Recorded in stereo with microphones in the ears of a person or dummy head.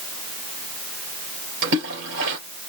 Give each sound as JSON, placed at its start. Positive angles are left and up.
{"t": 1.6, "sound": "a splash", "side_deg": -65, "distance_m": 3.5}